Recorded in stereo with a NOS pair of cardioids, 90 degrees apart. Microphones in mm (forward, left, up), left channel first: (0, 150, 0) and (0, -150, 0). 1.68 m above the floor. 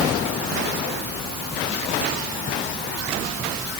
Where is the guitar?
I don't hear a guitar.